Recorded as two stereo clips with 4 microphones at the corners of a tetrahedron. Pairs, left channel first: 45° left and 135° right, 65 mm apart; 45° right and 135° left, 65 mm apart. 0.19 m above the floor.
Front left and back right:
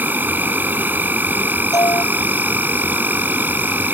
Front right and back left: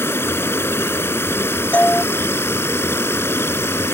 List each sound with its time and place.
0.0 s an insect: 85° right
1.7 s a doorbell: 25° left